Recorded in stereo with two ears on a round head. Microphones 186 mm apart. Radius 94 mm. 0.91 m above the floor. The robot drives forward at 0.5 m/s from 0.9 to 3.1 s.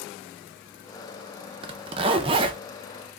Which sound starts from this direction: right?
A zipper, at 1.6 s.